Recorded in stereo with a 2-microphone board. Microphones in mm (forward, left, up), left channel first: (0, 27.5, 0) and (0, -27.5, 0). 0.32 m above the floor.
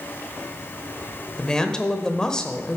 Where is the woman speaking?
15° left (ahead or behind), 0.9 m.